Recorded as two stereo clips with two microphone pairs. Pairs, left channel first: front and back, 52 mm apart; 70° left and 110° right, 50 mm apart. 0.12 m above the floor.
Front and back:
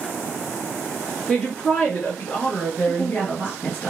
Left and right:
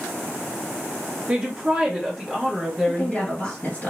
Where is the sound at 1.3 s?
65° right, 1.4 m; by 3.6 s 20° left, 1.6 m.